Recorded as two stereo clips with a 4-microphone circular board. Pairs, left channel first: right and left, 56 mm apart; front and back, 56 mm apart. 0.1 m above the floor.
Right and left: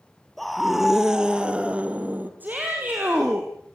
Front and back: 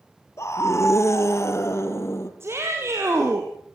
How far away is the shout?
About 3.5 m.